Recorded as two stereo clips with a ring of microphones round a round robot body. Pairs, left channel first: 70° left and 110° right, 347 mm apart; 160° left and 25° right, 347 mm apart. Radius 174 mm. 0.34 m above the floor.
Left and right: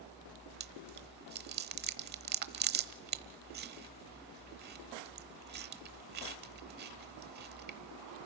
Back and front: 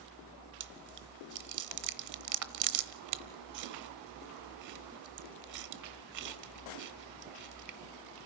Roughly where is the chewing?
Ahead right.